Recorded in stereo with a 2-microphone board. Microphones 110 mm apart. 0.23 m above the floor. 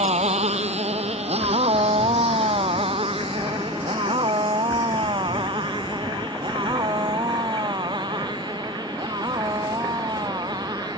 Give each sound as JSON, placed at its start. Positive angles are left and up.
{"t": 0.0, "sound": "a motorcycle", "side_deg": -80}